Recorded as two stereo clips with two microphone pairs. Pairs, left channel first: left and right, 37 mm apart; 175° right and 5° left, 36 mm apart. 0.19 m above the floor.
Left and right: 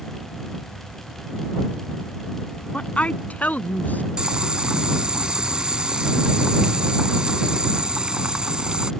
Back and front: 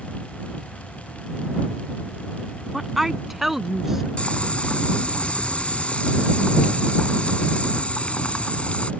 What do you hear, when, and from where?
2.7 s a woman speaking: 85° left; by 4.1 s 80° left
4.2 s boiling: 140° right